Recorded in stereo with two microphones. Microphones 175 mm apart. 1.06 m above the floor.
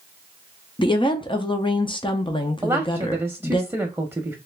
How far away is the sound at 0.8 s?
About 0.6 m.